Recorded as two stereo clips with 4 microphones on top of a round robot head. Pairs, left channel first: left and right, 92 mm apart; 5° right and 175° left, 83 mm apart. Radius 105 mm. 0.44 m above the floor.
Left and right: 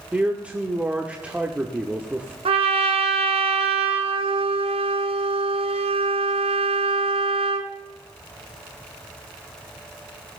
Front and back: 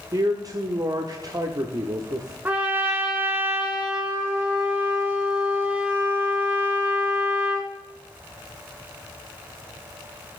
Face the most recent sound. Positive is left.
turn(degrees=-110)